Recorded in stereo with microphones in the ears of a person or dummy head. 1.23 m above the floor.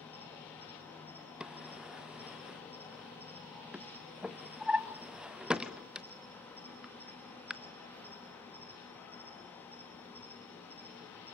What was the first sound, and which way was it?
An insect, 10° left (ahead or behind).